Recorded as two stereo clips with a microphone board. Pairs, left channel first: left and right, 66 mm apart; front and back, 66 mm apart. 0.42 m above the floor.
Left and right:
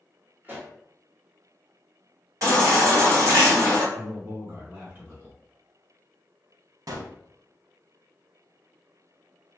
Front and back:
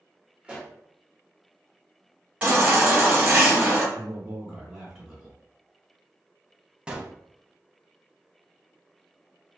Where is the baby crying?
110° right, 1.6 m.